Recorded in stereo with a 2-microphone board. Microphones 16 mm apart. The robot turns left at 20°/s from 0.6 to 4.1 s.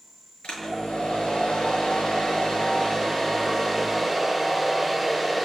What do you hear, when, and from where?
0.4 s a hair dryer: 85° left, 6 m; by 5.5 s 15° left, 6 m